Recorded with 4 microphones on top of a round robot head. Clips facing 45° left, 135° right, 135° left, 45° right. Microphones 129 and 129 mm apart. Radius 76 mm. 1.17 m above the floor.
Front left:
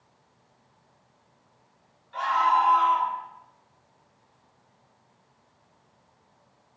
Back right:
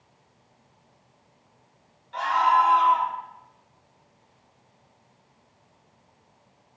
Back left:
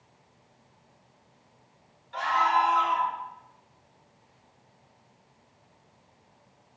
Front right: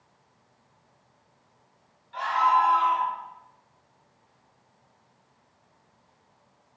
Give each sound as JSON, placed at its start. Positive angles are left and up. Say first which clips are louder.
{"t": 2.1, "sound": "a scream", "louder": "back right 2 dB, front right 2 dB", "azimuth_deg": 175, "distance_m": 4.0}